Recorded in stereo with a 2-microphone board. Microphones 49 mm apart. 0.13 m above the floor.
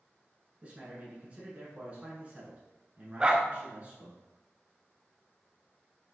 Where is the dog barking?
20° right (ahead or behind), 0.6 m.